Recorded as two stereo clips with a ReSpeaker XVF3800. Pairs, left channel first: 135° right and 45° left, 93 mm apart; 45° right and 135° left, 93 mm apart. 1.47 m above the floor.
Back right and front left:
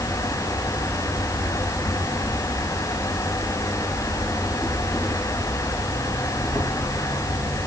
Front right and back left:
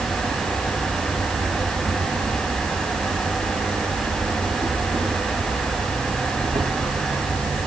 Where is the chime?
I don't hear a chime.